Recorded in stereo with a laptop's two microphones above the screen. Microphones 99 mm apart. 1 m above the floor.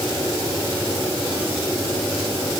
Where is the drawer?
No drawer in this recording.